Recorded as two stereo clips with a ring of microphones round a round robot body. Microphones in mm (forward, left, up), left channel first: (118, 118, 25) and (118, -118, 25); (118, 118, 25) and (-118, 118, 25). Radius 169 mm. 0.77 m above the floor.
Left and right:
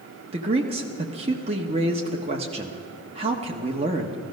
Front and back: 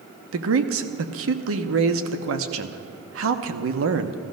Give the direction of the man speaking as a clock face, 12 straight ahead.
5 o'clock.